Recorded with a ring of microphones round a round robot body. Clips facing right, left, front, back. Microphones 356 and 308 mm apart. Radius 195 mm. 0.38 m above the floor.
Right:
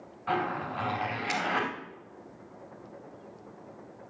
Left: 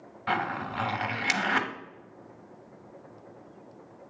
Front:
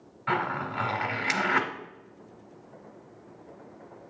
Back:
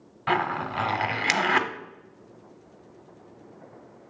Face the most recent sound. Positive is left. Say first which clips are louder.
# right 2 dB, back 3 dB
turn(degrees=140)